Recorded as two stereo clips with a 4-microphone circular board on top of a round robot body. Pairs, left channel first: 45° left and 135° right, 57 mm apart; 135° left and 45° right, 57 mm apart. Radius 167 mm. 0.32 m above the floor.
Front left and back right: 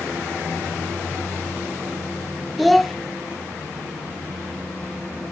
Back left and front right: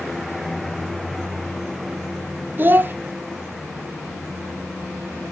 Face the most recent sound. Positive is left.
turn(degrees=-45)